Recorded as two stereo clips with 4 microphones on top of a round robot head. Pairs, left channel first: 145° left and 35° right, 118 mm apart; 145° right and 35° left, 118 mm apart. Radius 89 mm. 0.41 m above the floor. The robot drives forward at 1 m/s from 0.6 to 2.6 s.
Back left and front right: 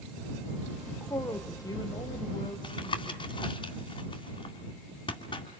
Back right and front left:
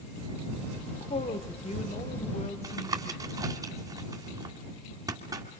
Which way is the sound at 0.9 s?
145° right.